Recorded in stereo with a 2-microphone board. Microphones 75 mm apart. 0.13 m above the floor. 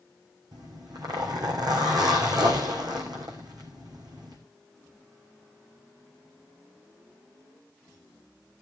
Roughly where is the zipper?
Right.